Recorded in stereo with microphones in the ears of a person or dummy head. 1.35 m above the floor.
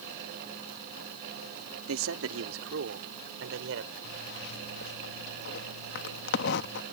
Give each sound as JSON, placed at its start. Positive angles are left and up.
{"t": 1.9, "sound": "a man speaking", "side_deg": -75}
{"t": 4.0, "sound": "a zipper", "side_deg": 65}